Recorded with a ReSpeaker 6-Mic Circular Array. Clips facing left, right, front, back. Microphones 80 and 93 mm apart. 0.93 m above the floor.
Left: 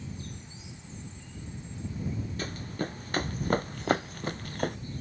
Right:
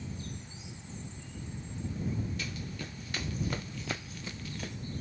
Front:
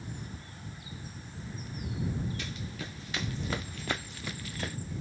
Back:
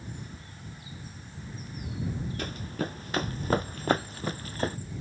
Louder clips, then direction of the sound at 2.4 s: Left 6 dB, back 7 dB; 135° left.